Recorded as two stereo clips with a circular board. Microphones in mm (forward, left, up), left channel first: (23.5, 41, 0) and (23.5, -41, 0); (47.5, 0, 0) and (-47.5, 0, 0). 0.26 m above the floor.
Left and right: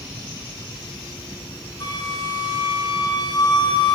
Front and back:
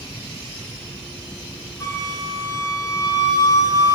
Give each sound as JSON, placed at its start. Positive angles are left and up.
{"t": 1.8, "sound": "a flute", "azimuth_deg": 55, "distance_m": 1.3}